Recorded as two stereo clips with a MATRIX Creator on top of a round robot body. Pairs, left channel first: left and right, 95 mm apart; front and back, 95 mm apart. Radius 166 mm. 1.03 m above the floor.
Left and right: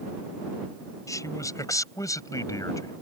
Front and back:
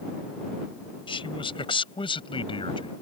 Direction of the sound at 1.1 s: 30° left.